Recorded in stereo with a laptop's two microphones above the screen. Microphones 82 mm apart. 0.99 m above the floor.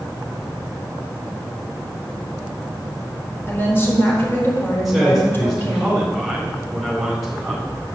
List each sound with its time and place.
3.5 s a woman speaking: 30° left (ahead or behind), 4 m
4.8 s a man speaking: 5° right (ahead or behind), 3.5 m